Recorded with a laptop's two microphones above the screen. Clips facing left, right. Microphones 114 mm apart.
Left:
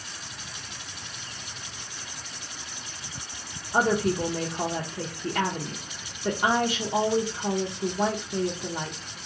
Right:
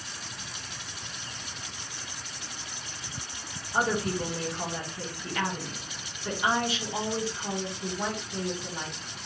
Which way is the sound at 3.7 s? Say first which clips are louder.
Left 4 dB; 50° left (ahead or behind).